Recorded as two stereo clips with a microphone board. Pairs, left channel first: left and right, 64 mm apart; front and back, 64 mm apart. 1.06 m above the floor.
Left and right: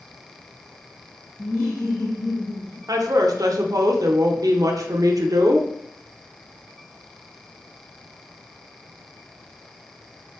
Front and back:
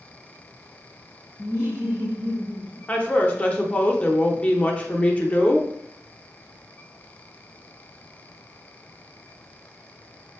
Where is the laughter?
55° left, 1.3 m; by 2.8 s 95° left, 1.7 m.